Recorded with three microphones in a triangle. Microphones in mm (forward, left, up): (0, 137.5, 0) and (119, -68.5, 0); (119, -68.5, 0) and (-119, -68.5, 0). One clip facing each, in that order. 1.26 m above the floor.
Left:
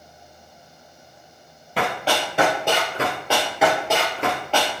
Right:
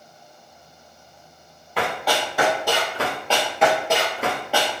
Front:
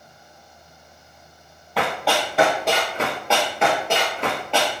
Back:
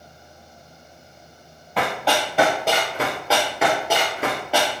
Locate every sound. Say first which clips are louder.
1.8 s running footsteps: even, even; 85° left, 1.6 m; by 4.8 s 110° right, 1.3 m